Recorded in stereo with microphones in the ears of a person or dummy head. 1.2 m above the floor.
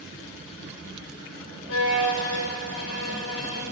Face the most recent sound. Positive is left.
turn(degrees=75)  # may be behind; listen again after turning